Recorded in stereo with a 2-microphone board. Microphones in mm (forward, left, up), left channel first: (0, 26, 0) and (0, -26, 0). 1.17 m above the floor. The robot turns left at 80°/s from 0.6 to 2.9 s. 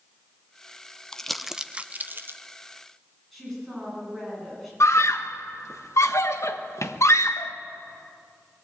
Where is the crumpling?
15° left (ahead or behind), 0.6 m; by 2.4 s 40° right (ahead or behind), 0.6 m.